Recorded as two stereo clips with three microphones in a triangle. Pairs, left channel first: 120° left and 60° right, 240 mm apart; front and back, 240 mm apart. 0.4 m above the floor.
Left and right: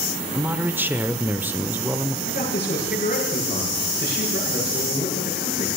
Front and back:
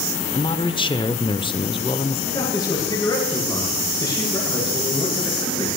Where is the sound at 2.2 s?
70° left, 7.5 m.